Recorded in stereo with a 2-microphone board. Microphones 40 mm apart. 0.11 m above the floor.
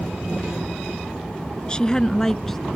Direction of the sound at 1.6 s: 25° left (ahead or behind).